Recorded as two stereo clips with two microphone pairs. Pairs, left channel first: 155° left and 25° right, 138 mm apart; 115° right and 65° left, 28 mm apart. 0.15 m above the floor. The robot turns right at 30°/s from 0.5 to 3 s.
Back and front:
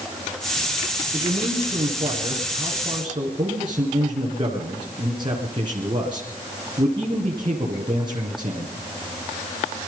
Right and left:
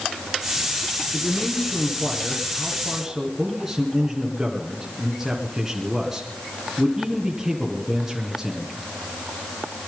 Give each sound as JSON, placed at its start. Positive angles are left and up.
{"t": 1.1, "sound": "a man speaking", "azimuth_deg": -50, "distance_m": 2.0}